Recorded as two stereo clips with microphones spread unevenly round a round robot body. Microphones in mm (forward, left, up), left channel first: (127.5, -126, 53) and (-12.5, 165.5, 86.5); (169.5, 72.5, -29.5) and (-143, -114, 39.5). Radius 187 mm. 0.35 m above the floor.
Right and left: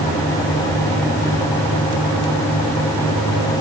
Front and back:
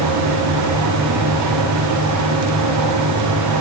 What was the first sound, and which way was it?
Only background noise.